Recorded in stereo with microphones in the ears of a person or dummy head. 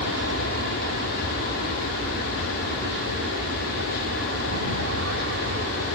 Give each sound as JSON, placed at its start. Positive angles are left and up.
{"t": 0.0, "sound": "an aircraft", "side_deg": -65}